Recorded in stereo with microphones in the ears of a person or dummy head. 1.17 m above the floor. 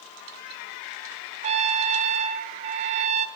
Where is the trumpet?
35° right (ahead or behind), 0.8 m.